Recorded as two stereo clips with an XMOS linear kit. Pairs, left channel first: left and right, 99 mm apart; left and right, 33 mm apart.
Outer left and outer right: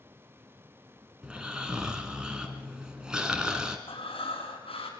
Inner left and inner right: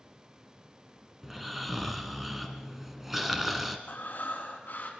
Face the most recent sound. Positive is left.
turn(degrees=70)  # may be behind; listen again after turning